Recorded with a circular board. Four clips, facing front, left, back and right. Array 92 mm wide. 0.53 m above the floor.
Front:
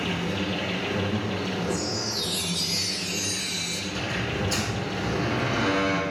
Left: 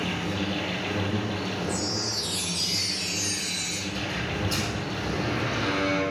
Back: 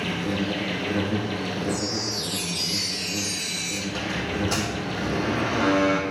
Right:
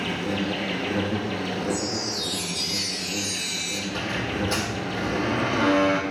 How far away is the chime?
About 6.5 m.